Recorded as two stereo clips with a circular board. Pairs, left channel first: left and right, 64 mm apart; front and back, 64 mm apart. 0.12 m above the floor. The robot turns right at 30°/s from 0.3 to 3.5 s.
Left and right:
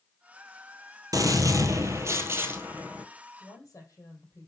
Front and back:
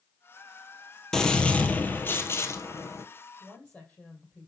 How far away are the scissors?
I don't hear scissors.